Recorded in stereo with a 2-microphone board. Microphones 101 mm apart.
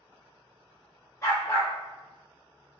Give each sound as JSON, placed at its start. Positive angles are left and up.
{"t": 1.2, "sound": "a dog barking", "side_deg": 35, "distance_m": 1.2}